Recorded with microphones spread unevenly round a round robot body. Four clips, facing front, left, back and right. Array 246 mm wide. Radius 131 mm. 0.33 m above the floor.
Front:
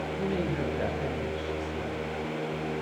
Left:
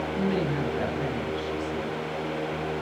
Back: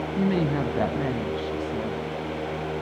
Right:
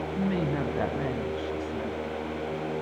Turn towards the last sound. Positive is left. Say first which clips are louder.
# left 1 dB, back 7 dB
turn(degrees=-175)